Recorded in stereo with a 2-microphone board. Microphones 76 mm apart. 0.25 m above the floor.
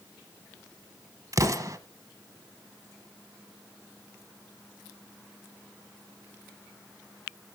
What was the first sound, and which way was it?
An explosion, 45° right (ahead or behind).